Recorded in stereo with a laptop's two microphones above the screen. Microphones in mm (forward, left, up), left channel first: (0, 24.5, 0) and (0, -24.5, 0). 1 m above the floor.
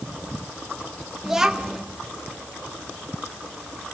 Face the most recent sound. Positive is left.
turn(degrees=-10)  # may be behind; listen again after turning